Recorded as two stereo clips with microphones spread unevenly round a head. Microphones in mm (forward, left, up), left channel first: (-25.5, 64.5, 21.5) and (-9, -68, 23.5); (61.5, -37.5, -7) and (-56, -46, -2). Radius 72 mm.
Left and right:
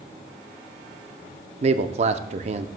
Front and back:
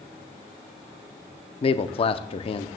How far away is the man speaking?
About 0.6 m.